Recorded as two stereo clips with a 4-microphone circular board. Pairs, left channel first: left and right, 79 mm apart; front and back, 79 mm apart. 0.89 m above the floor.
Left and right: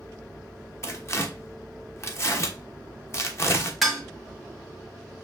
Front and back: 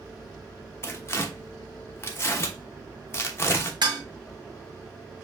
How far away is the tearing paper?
About 0.9 m.